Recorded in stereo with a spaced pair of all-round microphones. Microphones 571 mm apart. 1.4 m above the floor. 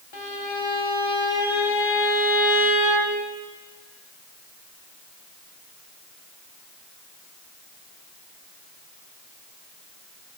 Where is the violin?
50° left (ahead or behind), 1.5 m.